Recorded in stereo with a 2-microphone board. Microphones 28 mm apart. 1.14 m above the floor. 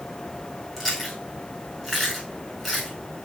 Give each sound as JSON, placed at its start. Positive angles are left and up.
{"t": 0.8, "sound": "chewing", "side_deg": 0, "distance_m": 4.0}